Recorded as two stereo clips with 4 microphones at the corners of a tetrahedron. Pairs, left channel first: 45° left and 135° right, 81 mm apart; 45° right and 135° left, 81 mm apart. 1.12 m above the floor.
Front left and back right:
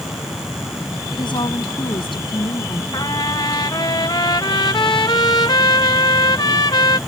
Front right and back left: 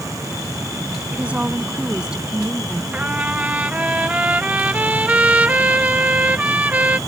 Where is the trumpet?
65° left.